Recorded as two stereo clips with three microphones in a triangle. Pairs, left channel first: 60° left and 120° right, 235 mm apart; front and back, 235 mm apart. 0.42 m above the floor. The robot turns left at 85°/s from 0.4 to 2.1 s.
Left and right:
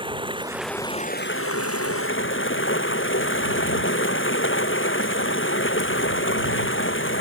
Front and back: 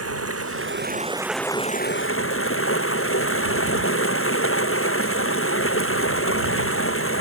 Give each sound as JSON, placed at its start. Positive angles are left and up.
{"t": 0.0, "sound": "running water", "azimuth_deg": 170}